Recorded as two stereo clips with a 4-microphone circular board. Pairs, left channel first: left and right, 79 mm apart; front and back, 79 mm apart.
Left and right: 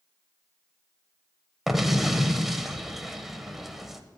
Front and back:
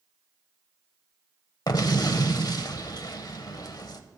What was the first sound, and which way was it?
An explosion, 5° right.